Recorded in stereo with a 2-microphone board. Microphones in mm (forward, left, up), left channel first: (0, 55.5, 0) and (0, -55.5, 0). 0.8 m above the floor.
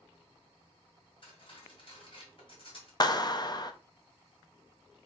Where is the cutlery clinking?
50° left (ahead or behind), 2.5 m.